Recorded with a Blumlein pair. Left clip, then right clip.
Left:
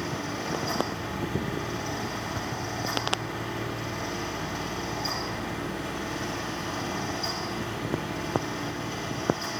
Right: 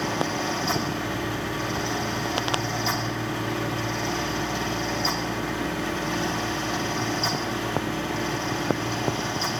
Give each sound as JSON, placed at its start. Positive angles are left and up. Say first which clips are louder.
{"t": 0.0, "sound": "a fan", "louder": "right 6 dB", "azimuth_deg": -25, "distance_m": 0.9}